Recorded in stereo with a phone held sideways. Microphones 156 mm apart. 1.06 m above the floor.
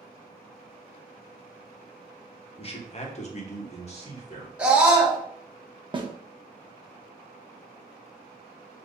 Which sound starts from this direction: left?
A man speaking, at 2.6 s.